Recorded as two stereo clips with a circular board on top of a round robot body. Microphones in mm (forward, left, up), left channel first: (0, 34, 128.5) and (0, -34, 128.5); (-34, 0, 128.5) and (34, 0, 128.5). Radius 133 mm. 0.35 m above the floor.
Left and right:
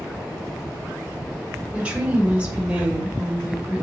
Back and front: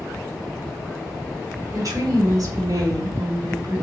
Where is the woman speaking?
20° right, 2.5 m.